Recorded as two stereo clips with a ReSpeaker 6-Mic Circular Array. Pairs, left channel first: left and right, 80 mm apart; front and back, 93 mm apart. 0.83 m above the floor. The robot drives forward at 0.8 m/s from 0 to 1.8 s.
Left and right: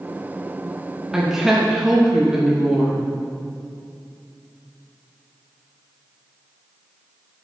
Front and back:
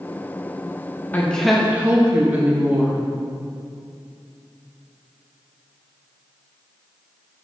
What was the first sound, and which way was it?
A woman speaking, 20° right.